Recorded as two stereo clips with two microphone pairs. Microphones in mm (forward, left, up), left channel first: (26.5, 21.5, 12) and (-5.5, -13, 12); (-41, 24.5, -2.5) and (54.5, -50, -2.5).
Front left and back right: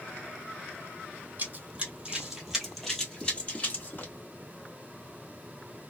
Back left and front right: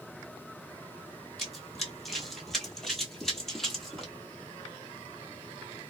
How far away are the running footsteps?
About 1.4 m.